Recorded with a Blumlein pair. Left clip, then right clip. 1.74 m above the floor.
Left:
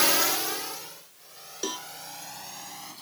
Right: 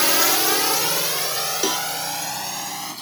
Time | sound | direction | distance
0.0 | a drone | 10° right | ?
1.6 | a cowbell | 65° right | ?